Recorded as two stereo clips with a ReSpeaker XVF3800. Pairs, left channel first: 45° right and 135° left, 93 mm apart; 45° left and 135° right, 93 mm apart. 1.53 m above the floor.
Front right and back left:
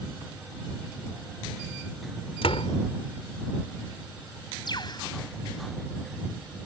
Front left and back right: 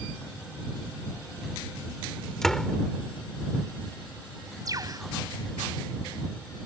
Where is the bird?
85° right.